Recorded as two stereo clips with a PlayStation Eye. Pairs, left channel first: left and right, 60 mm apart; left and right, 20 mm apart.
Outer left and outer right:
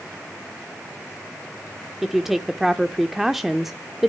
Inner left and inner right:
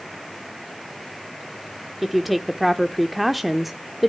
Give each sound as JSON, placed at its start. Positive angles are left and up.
{"t": 2.0, "sound": "a woman speaking", "side_deg": -5, "distance_m": 0.8}